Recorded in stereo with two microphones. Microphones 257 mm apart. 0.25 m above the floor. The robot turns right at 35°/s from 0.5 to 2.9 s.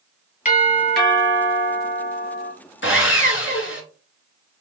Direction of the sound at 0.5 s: 35° left.